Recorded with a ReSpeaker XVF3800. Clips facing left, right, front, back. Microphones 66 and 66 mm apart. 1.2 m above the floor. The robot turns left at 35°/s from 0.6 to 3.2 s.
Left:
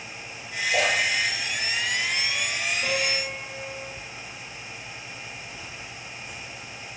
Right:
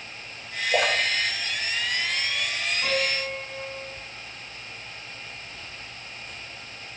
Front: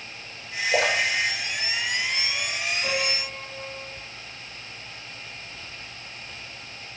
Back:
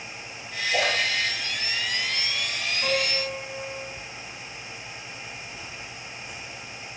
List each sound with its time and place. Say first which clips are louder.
0.7 s a splash: even, front 2 dB; 45° right, 1.0 m; by 2.5 s 105° right, 1.0 m
2.8 s a piano: right 3 dB, back 2 dB; 140° right, 1.6 m; by 3.9 s 155° right, 1.6 m